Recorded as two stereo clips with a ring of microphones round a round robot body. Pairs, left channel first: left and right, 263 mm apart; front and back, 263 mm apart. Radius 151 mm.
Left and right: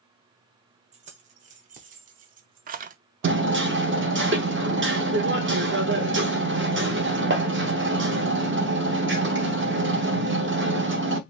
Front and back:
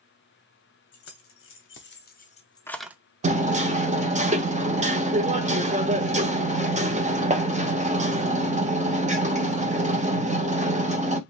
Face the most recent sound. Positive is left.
turn(degrees=-120)